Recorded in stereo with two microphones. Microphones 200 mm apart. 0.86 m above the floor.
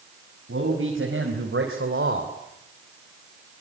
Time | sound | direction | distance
0.5 | a man speaking | 85° right | 5 m